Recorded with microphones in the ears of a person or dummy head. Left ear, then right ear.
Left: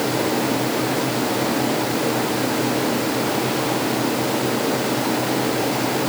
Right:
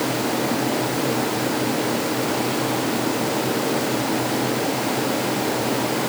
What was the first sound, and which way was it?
Only background noise.